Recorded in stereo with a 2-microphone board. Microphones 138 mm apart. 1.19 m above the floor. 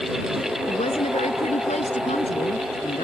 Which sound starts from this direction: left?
A woman speaking, at 0.7 s.